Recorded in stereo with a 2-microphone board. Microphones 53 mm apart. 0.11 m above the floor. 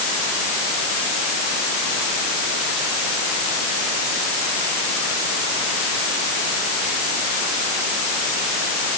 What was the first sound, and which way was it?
Only background noise.